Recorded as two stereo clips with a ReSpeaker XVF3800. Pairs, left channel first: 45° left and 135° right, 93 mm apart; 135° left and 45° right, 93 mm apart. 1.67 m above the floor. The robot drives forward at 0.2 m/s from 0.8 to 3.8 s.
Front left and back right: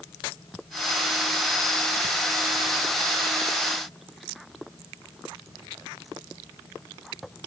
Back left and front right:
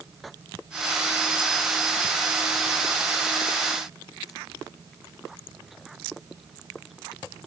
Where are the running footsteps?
I don't hear running footsteps.